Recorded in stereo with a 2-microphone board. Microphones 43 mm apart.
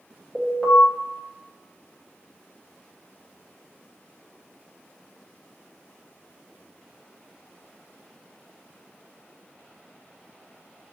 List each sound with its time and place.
0.3 s an alarm: 15° left (ahead or behind), 1.1 m